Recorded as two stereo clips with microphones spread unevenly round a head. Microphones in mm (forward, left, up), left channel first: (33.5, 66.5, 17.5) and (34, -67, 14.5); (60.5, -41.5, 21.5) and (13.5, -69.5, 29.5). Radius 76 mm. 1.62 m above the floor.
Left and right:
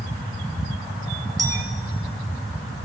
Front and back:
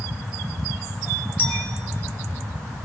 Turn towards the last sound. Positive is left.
turn(degrees=-25)